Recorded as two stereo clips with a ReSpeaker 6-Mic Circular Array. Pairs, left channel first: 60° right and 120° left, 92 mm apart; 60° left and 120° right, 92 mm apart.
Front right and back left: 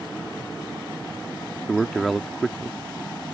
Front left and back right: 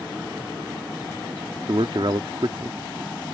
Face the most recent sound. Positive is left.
turn(degrees=-150)